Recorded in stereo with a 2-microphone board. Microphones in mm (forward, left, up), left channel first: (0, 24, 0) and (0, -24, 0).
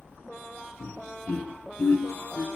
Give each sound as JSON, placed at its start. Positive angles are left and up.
{"t": 0.8, "sound": "laughter", "side_deg": 35, "distance_m": 1.8}